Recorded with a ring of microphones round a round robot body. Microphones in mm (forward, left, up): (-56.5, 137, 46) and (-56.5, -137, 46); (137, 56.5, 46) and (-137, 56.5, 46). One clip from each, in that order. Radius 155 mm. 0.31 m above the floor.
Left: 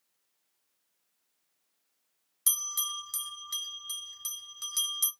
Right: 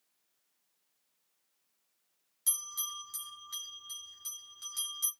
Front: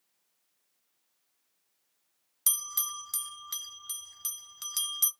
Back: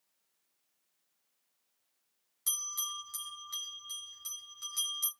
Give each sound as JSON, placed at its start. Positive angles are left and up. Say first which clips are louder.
{"t": 2.5, "sound": "a bell", "louder": "left 6 dB, front 2 dB", "azimuth_deg": 30, "distance_m": 2.5}